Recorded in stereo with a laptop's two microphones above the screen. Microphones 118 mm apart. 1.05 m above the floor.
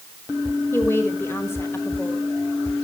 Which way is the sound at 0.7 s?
20° left (ahead or behind).